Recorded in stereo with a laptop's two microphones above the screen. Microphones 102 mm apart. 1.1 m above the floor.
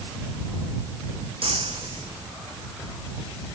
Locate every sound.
1.4 s breaking glass: 65° right (ahead or behind)